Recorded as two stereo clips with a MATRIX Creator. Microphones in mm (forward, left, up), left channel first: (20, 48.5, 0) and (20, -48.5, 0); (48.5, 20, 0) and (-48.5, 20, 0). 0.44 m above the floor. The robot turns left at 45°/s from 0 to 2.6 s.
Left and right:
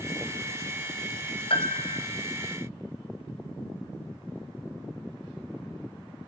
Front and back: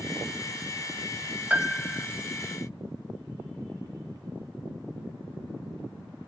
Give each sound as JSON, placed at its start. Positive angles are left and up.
{"t": 1.5, "sound": "a piano", "azimuth_deg": 105, "distance_m": 1.0}